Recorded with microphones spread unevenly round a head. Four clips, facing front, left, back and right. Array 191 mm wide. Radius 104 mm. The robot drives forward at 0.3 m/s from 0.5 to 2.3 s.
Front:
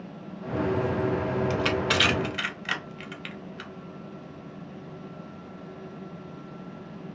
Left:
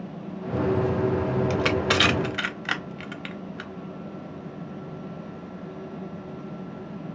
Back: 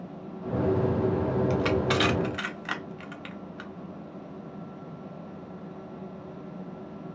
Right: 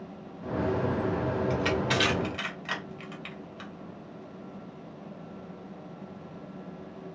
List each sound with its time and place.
1.5 s crushing: 75° left, 0.6 m; by 3.7 s 100° left, 0.6 m